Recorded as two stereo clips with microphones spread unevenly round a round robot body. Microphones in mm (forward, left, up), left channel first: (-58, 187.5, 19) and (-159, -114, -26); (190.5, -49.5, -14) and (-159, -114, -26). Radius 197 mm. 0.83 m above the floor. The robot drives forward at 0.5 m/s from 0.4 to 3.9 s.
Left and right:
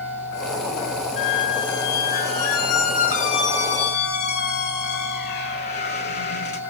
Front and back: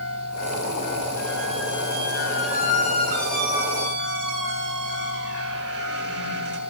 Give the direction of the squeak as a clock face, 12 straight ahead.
9 o'clock.